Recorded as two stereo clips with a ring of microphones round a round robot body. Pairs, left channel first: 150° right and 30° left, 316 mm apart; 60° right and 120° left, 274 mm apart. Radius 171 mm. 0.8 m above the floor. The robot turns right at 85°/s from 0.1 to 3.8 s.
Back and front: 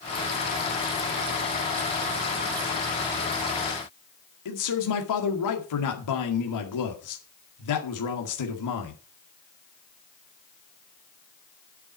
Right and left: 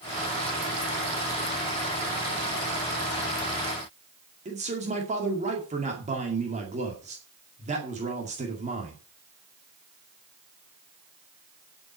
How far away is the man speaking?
About 2 m.